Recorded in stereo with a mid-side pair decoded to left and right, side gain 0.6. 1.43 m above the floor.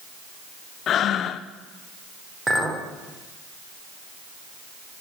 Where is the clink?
25° right, 2.5 m.